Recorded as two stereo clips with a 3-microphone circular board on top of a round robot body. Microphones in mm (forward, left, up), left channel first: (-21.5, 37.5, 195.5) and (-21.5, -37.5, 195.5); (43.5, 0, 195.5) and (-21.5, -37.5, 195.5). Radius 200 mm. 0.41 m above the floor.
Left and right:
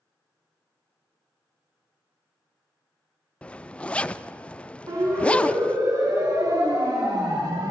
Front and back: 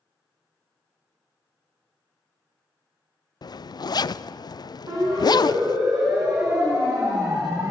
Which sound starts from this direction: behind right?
A siren, at 4.9 s.